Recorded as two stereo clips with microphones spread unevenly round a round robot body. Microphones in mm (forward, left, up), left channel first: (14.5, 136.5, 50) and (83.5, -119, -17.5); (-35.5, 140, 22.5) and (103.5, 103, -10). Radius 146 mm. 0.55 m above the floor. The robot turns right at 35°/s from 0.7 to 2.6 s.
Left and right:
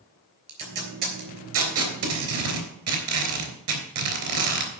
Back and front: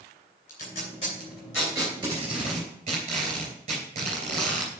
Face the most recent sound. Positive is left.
turn(degrees=-70)